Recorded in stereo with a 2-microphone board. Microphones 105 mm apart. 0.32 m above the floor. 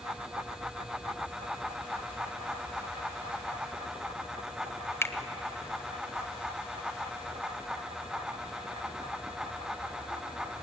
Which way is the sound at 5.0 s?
25° left (ahead or behind).